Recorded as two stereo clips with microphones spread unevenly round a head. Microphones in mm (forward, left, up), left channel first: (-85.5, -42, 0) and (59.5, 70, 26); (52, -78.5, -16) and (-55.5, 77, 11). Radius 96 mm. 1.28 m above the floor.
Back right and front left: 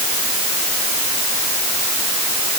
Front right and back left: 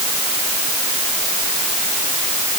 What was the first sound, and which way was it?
Only background noise.